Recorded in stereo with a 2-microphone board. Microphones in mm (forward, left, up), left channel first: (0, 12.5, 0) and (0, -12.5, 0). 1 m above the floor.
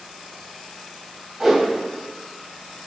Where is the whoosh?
10° right (ahead or behind), 2.5 m.